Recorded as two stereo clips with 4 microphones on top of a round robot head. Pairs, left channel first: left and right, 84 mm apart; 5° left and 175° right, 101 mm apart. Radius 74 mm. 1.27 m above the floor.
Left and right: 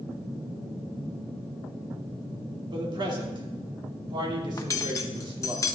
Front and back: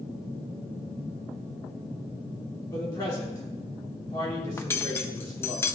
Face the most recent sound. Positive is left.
turn(degrees=60)